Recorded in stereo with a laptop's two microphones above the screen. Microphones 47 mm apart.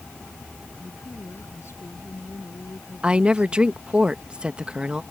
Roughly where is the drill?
I don't hear a drill.